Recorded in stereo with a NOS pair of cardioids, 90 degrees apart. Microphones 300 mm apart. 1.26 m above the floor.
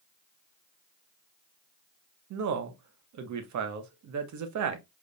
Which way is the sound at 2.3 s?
65° right.